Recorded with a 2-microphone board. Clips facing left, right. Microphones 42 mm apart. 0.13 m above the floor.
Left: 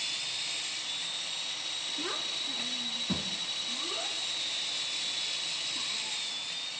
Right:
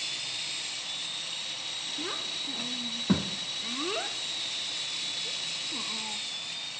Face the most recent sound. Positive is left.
turn(degrees=-65)  # may be behind; listen again after turning